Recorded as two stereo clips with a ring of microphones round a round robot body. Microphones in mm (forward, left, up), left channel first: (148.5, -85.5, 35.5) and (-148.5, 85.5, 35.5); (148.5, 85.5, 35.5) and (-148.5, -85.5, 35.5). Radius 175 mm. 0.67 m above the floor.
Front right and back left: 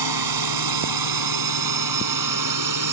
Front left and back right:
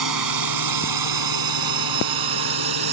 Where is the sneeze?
I don't hear a sneeze.